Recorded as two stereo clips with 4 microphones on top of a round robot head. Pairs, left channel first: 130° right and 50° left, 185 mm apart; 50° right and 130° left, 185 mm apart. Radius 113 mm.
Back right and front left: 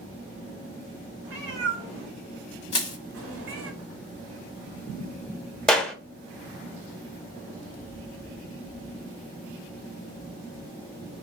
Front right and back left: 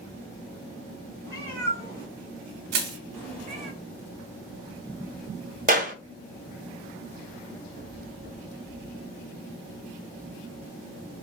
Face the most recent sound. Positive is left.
turn(degrees=145)